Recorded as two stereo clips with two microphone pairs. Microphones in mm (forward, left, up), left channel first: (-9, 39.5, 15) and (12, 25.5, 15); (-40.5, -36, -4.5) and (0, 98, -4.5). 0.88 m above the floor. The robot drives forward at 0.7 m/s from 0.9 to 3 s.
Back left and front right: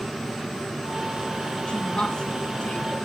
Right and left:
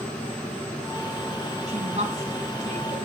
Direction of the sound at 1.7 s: 110° left.